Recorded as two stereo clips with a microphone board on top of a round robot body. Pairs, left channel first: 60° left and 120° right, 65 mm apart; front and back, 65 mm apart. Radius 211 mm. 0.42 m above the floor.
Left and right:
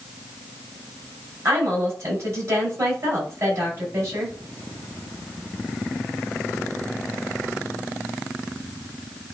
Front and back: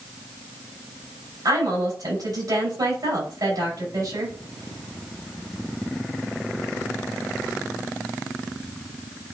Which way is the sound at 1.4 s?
170° right.